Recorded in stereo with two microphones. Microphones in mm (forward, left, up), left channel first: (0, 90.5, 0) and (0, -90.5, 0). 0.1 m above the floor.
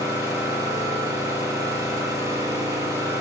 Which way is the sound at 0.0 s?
20° right (ahead or behind).